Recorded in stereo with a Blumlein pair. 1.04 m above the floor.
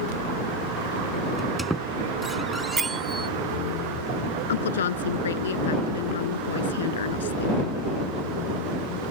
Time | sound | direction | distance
1.4 | a squeak | 5° right | ?
2.8 | a bell | 20° right | ?
4.5 | a woman speaking | 65° left | ?